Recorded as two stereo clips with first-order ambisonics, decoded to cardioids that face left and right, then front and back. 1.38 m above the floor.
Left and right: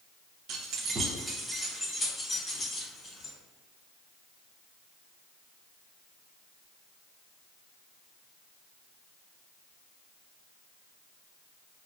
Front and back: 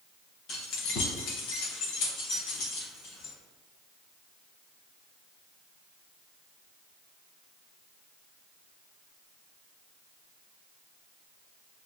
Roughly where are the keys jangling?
Ahead right.